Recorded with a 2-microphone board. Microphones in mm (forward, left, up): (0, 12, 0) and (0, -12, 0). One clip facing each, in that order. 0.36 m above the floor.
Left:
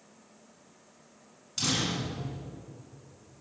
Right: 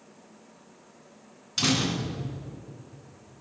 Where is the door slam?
30° right (ahead or behind), 3 m.